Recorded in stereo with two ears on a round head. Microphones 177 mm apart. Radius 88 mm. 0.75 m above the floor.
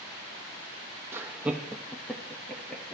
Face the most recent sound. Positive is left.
turn(degrees=5)  # may be behind; listen again after turning